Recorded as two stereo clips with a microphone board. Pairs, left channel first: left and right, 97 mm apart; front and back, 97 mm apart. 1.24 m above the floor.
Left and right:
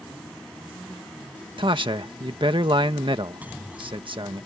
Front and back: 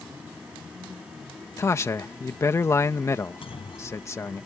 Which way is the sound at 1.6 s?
60° right.